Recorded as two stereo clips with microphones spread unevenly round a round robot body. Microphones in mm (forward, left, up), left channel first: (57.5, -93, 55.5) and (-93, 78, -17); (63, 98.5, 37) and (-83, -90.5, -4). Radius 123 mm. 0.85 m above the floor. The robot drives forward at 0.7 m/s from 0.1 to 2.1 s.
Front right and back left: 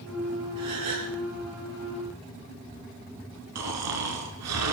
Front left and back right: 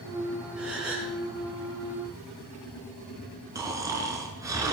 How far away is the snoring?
About 4.5 m.